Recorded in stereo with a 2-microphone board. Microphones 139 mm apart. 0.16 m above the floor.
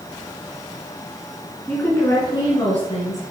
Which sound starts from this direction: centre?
A woman speaking, at 1.7 s.